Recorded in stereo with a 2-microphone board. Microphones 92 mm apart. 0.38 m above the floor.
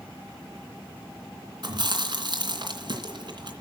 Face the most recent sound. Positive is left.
turn(degrees=-55)  # may be behind; listen again after turning